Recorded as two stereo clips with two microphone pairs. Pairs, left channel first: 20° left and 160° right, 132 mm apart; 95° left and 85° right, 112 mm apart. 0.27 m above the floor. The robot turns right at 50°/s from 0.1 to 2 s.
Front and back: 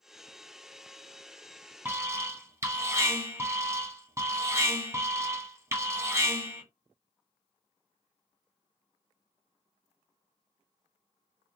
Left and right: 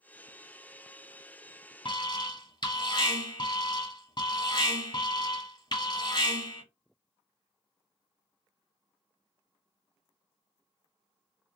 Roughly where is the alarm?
Behind left.